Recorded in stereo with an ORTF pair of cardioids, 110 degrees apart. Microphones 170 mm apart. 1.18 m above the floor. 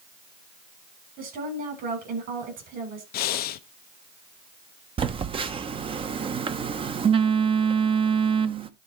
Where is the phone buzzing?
35° right, 0.9 m.